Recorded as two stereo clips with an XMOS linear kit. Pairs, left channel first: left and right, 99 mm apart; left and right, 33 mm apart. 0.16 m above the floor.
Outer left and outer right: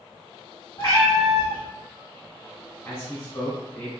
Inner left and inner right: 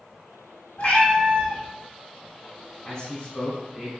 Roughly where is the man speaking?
Left.